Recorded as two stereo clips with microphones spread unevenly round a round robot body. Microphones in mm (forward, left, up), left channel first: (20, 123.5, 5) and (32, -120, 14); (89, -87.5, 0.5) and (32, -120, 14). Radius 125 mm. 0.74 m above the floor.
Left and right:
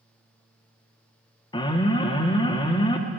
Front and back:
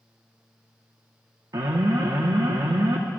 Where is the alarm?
160° left, 1.3 m.